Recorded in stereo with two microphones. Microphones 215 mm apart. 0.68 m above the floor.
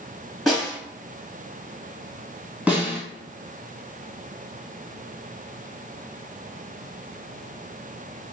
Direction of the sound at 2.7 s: 5° right (ahead or behind).